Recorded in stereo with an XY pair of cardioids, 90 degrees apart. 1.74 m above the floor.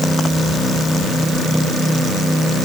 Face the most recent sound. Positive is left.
No sound to turn to.